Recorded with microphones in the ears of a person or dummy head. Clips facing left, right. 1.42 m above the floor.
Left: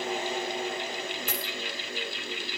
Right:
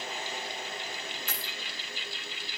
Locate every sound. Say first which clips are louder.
0.0 s a fan: left 8 dB; 55° left (ahead or behind), 0.9 m
1.3 s a dropped coin: left 7 dB; 45° left (ahead or behind), 5.5 m